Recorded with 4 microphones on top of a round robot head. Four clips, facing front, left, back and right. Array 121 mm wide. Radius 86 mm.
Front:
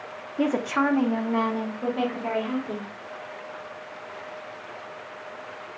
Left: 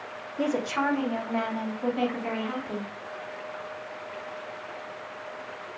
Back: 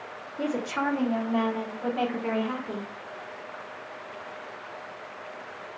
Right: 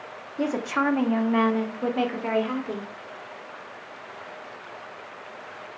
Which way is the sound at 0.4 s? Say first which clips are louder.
Right 2 dB, front 5 dB; 20° right.